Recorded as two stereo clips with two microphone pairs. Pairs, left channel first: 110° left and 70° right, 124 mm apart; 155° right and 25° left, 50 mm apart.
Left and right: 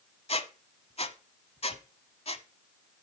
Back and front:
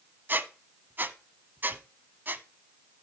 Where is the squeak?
75° left, 0.6 m.